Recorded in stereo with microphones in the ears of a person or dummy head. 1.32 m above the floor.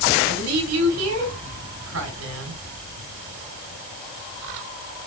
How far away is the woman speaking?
About 4.5 m.